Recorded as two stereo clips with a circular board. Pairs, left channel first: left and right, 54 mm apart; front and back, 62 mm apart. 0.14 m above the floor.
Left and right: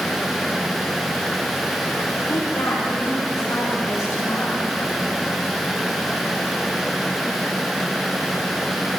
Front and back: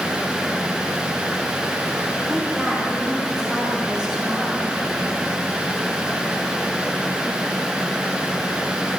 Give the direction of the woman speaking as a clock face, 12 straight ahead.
9 o'clock.